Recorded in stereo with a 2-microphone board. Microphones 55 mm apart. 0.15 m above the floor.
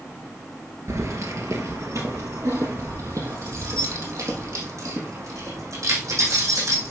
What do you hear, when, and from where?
0.9 s keys jangling: 65° right (ahead or behind), 1.7 m; by 6.9 s 75° right (ahead or behind), 5.5 m